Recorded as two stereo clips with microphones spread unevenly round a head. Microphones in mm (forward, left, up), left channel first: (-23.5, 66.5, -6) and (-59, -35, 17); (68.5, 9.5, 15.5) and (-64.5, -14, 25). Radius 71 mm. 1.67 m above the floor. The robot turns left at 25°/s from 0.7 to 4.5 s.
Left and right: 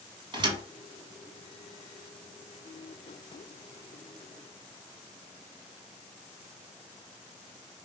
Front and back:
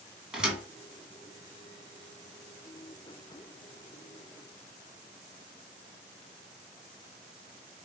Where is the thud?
90° right, 2.5 m.